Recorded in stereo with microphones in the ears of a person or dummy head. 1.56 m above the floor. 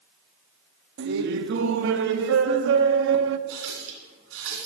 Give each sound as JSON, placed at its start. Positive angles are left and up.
{"t": 1.0, "sound": "laughter", "side_deg": -60, "distance_m": 0.5}
{"t": 3.5, "sound": "a running tap", "side_deg": -75, "distance_m": 2.5}